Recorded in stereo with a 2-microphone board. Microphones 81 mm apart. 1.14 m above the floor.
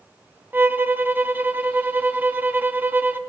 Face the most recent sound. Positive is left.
turn(degrees=-25)  # may be behind; listen again after turning